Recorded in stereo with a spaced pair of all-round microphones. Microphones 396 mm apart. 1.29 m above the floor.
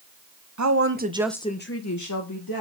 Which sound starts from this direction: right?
A woman speaking, at 0.6 s.